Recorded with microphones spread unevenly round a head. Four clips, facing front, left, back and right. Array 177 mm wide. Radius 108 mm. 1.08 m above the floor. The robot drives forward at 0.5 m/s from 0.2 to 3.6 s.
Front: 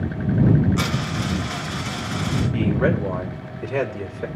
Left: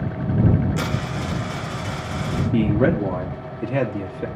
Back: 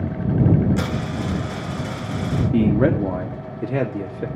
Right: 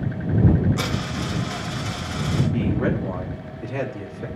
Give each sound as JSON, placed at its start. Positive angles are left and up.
{"t": 0.8, "sound": "a dropped coin", "azimuth_deg": 160, "distance_m": 9.5}
{"t": 2.5, "sound": "a man speaking", "azimuth_deg": 145, "distance_m": 2.0}